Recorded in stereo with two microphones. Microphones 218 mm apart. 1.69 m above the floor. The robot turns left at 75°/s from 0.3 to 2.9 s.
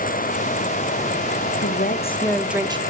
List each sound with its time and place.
1.6 s a woman speaking: 65° left, 0.5 m; by 2.8 s 25° right, 0.5 m